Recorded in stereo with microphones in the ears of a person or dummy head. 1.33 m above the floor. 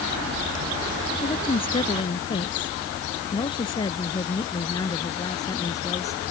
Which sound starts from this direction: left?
A woman speaking, at 1.2 s.